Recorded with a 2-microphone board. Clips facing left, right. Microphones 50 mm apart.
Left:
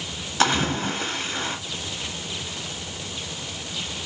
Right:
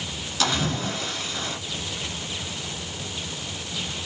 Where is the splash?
35° left (ahead or behind), 1.4 m.